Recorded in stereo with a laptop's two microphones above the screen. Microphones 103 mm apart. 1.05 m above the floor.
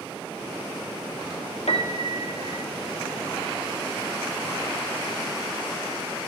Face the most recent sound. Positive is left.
turn(degrees=85)